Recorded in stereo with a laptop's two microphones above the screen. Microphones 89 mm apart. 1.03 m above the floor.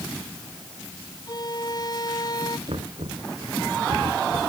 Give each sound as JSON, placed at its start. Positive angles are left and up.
{"t": 1.3, "sound": "a violin", "side_deg": 45}
{"t": 2.7, "sound": "knocking", "side_deg": -65}